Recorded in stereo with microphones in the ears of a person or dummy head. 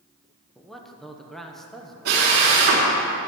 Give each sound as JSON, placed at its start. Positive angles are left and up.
{"t": 0.6, "sound": "a man speaking", "side_deg": 0, "distance_m": 1.3}
{"t": 2.0, "sound": "a drill", "side_deg": -55, "distance_m": 3.5}